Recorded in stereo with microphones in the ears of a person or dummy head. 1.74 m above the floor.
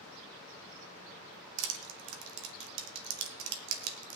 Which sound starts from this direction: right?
Crushing, at 1.6 s.